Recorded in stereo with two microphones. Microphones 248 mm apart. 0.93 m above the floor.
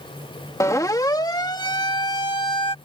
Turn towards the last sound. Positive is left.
turn(degrees=20)  # may be behind; listen again after turning